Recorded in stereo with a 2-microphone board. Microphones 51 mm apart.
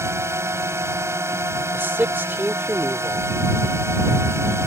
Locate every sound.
0.0 s a drone: 60° right (ahead or behind)
1.7 s a man speaking: 40° right (ahead or behind)